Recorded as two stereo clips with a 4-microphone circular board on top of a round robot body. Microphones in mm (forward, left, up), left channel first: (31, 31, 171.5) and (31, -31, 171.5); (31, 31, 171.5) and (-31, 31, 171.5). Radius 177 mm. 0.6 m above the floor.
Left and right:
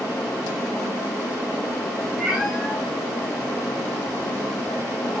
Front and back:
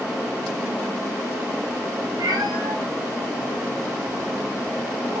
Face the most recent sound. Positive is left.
turn(degrees=-165)